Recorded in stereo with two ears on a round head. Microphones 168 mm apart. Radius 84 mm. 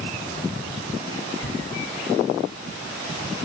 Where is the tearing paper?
65° left (ahead or behind), 5.5 m.